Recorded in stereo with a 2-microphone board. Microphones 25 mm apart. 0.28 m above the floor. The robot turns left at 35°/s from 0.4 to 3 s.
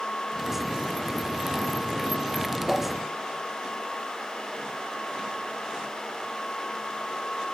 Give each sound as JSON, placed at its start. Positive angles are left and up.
{"t": 2.7, "sound": "a whoosh", "side_deg": -10, "distance_m": 4.5}